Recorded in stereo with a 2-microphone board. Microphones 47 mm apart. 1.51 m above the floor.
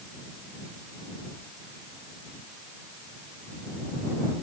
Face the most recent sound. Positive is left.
No sound to turn to.